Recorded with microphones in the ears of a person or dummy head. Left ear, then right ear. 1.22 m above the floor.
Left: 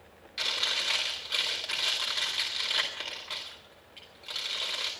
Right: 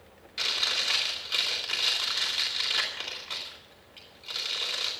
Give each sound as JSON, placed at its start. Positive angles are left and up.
{"t": 0.4, "sound": "chewing", "side_deg": 10, "distance_m": 3.5}